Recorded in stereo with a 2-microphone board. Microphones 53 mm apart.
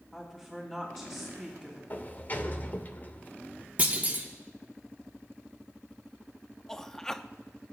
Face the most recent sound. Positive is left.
turn(degrees=10)  # may be behind; listen again after turning